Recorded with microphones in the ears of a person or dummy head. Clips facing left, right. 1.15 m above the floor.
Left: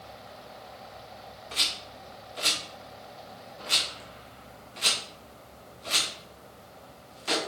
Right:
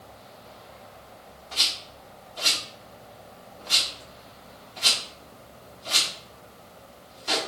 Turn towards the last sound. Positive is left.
turn(degrees=25)  # may be behind; listen again after turning